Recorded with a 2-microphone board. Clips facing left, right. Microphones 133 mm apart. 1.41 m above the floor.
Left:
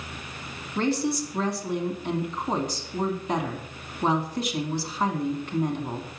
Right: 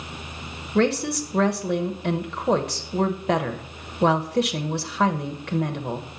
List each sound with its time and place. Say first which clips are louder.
0.8 s a woman speaking: right 4 dB; 75° right (ahead or behind), 1.1 m